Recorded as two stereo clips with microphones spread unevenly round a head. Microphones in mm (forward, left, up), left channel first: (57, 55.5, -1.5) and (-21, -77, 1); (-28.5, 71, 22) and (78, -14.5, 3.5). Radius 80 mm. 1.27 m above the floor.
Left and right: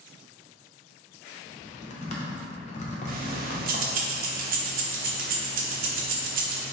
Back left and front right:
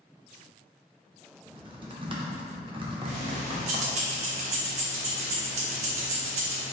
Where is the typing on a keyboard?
15° left, 0.7 m.